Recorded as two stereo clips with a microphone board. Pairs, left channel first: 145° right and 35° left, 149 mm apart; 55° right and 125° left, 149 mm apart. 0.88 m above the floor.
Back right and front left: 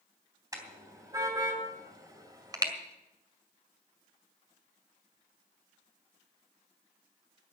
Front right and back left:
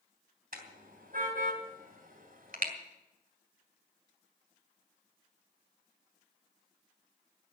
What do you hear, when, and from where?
0.5 s a car horn: 105° left, 3 m; by 2.7 s 100° left, 1.9 m